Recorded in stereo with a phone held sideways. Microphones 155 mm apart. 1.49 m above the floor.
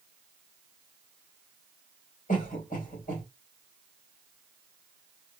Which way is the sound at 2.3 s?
55° left (ahead or behind).